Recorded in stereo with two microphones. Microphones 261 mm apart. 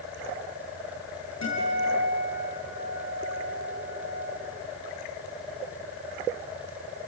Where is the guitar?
85° left, 8.5 m.